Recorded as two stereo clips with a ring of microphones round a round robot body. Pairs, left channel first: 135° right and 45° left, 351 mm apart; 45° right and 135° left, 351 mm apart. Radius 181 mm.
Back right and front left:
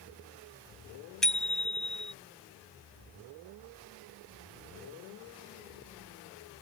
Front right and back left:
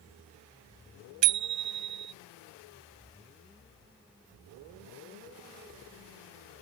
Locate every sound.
1.2 s a bicycle bell: 135° left